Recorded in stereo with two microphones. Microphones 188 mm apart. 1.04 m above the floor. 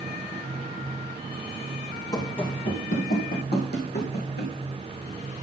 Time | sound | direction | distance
2.1 | running footsteps | 20° left (ahead or behind) | 1.7 m